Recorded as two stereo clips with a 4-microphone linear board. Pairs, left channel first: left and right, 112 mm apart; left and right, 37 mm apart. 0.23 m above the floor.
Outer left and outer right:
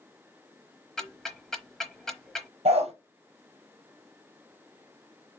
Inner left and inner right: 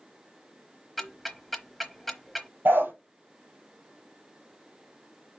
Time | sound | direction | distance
1.0 | ticking | 5° left (ahead or behind) | 0.9 m
2.6 | a dog barking | 70° right (ahead or behind) | 2 m